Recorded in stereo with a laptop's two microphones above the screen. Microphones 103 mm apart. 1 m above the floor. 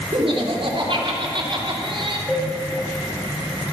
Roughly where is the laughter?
Right.